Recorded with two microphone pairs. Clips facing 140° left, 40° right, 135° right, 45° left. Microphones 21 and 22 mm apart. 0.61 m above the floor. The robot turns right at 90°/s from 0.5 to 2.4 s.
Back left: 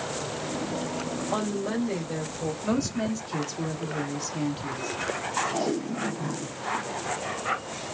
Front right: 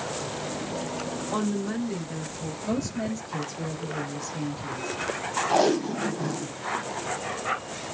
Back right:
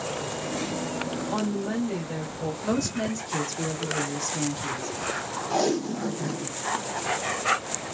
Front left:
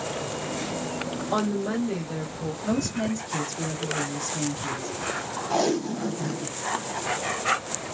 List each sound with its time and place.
1.3 s a woman speaking: 65° left, 2.5 m; by 2.5 s 165° left, 2.5 m
2.6 s a woman speaking: 165° left, 1.6 m
5.5 s tape being pulled: 40° right, 0.7 m